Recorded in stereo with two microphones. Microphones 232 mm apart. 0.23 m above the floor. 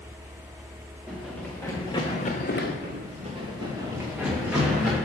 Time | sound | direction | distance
1.1 | running footsteps | centre (ahead or behind) | 1.7 m
2.8 | running footsteps | 40° right (ahead or behind) | 1.4 m